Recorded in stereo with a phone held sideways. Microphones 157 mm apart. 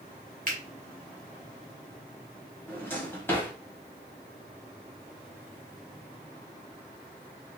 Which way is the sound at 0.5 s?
55° right (ahead or behind).